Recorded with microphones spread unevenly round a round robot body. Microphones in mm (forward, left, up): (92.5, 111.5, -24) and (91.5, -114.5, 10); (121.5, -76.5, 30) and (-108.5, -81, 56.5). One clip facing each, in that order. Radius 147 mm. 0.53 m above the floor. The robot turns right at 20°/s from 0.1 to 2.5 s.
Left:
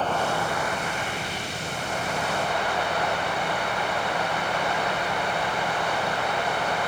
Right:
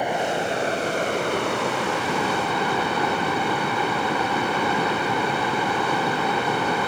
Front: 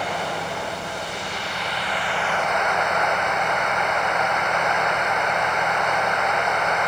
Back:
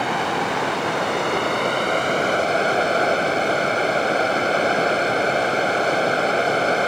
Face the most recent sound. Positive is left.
turn(degrees=-125)